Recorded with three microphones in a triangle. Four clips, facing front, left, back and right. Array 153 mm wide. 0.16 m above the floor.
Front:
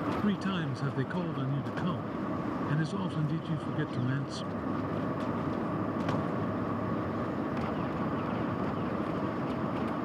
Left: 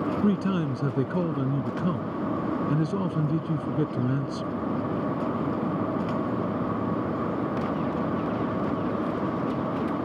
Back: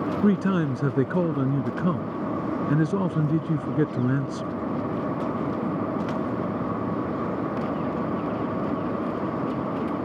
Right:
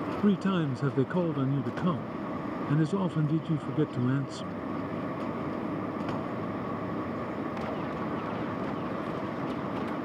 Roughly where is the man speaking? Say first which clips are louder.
Right 1 dB, back 9 dB; behind.